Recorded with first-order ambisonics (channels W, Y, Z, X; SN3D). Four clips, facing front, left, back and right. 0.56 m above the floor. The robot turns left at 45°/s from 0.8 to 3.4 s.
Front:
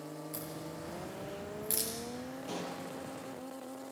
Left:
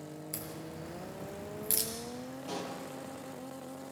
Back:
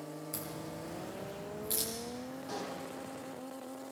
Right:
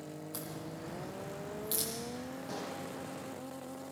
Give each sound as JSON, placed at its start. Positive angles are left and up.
{"t": 0.3, "sound": "a crack", "azimuth_deg": 110, "distance_m": 5.5}
{"t": 2.5, "sound": "a pop", "azimuth_deg": 50, "distance_m": 5.5}